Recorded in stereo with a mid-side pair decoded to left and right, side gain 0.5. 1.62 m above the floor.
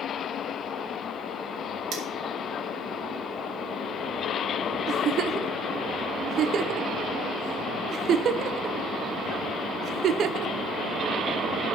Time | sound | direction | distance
1.9 | cutlery clinking | 65° right | 2.5 m
4.9 | a giggle | 60° right | 0.7 m